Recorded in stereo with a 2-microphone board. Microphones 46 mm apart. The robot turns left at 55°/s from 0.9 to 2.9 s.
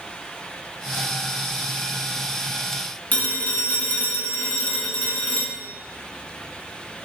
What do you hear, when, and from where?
3.1 s a phone ringing: 35° left (ahead or behind), 0.7 m